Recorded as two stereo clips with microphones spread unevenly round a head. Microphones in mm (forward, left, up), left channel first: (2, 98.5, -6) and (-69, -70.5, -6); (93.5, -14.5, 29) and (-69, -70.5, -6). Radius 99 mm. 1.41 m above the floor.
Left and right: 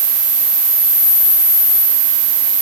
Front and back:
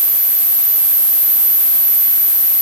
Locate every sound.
Only background noise.